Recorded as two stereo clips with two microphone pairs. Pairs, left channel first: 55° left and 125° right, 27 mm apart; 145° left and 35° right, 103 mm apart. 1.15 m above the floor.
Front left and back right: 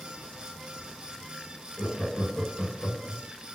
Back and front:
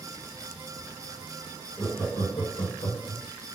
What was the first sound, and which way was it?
Laughter, 150° right.